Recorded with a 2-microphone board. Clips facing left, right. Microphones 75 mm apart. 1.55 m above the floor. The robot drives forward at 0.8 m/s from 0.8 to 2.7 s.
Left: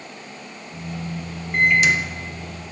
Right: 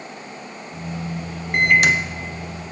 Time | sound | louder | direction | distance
1.5 | a microwave | right 1 dB | 70° right (ahead or behind) | 0.6 m